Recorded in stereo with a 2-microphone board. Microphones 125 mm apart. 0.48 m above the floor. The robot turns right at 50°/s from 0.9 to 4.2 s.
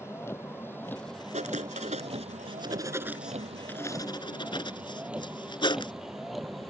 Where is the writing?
75° right (ahead or behind); by 5.9 s 40° left (ahead or behind).